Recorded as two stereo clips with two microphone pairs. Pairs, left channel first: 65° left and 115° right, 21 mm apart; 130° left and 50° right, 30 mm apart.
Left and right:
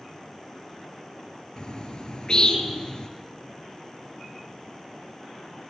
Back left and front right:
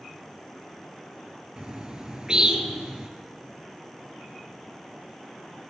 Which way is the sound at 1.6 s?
10° left.